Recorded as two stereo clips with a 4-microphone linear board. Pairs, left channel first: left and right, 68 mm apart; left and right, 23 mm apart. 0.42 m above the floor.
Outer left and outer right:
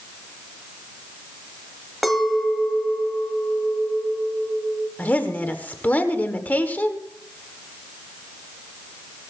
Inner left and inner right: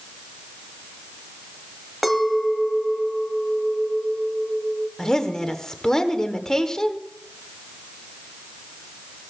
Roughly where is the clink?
Centre.